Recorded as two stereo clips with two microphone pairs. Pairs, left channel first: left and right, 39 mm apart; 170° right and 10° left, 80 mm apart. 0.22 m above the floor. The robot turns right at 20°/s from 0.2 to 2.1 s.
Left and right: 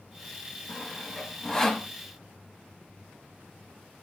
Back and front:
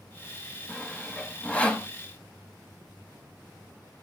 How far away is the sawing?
About 0.8 m.